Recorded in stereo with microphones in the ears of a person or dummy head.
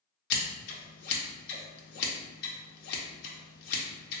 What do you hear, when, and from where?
0.3 s scissors: 60° left (ahead or behind), 0.7 m